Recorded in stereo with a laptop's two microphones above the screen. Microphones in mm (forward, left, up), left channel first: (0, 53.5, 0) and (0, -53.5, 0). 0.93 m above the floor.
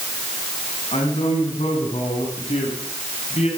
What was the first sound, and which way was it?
A man speaking, 80° left.